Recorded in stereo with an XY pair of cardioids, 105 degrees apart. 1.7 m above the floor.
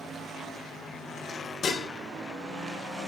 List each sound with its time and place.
1.6 s dishes clattering: 55° left, 2.5 m